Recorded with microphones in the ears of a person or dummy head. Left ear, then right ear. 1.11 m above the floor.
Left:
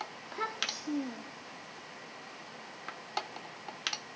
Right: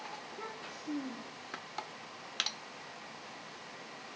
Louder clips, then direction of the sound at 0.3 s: Left 9 dB; 55° left (ahead or behind).